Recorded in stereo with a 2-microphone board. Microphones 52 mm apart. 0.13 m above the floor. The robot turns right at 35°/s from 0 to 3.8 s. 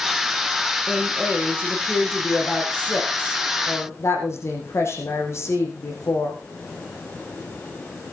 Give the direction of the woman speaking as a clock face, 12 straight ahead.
1 o'clock.